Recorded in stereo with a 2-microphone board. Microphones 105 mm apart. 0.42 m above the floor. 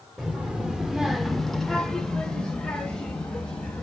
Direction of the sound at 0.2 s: 10° right (ahead or behind).